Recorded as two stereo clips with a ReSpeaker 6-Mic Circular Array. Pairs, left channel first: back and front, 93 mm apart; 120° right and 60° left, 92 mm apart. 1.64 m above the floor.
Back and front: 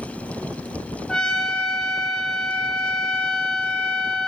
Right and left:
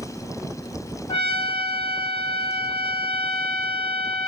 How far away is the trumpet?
About 0.6 m.